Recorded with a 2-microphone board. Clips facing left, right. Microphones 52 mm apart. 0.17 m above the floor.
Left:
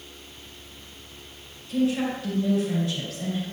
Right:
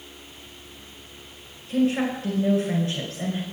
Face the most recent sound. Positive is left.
turn(degrees=-40)  # may be behind; listen again after turning